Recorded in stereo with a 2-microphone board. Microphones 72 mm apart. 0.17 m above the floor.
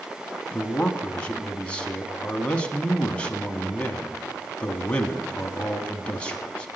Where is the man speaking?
15° left (ahead or behind), 1.0 m.